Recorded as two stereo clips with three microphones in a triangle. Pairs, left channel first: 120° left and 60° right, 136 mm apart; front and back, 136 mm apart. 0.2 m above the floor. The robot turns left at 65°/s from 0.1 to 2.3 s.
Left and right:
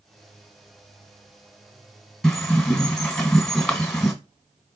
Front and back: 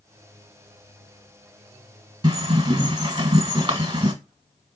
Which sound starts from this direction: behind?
A bird, at 2.2 s.